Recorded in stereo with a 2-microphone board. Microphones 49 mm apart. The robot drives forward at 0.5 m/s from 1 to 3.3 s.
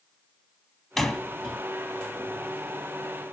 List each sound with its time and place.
1.0 s a door slam: 5° left (ahead or behind), 1.9 m